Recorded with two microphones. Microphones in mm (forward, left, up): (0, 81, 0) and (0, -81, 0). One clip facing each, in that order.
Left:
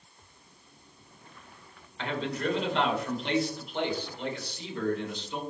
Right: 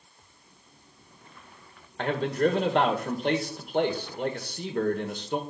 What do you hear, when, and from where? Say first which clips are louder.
2.0 s a man speaking: right 7 dB; 55° right (ahead or behind), 1.8 m